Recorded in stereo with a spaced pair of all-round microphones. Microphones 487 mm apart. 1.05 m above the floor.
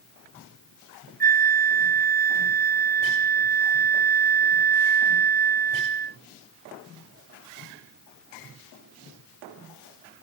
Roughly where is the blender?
I don't hear a blender.